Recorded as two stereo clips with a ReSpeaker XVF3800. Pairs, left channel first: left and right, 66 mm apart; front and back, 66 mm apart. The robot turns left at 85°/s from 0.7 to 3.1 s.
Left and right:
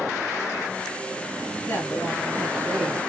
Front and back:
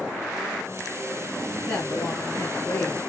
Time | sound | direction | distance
1.7 | a woman speaking | 85° left | 2 m